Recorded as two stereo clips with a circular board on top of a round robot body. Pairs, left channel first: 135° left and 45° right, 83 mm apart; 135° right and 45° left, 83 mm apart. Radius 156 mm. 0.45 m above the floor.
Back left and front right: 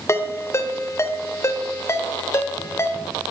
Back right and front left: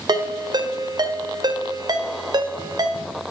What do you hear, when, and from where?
0.1 s a ringtone: 75° left, 1.3 m